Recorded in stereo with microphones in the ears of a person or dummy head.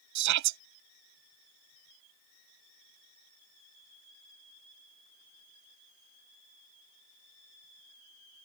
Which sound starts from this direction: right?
A shout, at 0.1 s.